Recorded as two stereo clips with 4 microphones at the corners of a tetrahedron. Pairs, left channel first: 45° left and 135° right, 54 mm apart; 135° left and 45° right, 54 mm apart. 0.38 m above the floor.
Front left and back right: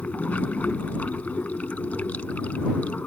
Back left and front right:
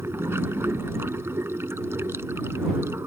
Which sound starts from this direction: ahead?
Running water, at 0.0 s.